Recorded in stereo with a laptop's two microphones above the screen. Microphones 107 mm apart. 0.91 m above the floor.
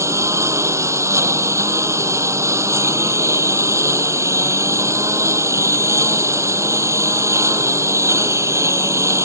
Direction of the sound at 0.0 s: 25° right (ahead or behind).